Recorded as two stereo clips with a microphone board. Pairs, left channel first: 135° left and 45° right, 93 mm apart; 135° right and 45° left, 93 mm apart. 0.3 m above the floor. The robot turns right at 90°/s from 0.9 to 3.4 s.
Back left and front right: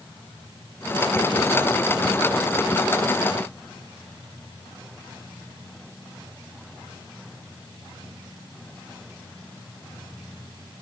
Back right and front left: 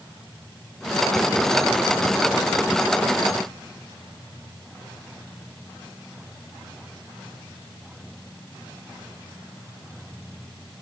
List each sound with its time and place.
Only background noise.